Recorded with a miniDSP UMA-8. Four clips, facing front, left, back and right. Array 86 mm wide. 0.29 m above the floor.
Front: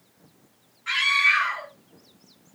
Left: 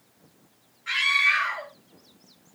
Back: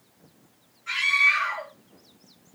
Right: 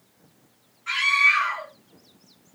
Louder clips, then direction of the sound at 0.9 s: Right 3 dB, front 1 dB; 20° left.